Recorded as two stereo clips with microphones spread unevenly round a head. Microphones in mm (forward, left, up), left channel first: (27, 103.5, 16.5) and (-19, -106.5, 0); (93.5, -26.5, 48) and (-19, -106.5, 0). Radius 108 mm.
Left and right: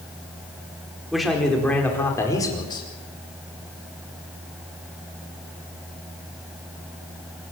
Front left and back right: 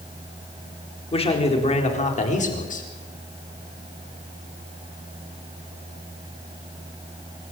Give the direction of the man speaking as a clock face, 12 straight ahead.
12 o'clock.